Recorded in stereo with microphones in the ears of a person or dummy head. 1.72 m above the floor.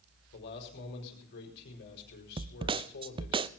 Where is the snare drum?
25° right (ahead or behind), 0.5 m.